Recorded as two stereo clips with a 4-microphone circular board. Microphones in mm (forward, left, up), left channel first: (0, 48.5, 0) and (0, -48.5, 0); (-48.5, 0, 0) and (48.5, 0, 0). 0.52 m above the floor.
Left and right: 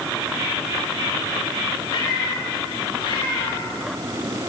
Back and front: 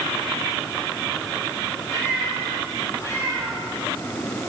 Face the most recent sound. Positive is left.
turn(degrees=125)